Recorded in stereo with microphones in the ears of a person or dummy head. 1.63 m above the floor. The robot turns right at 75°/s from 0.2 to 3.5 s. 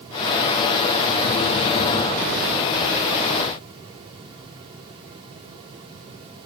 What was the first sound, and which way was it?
Only background noise.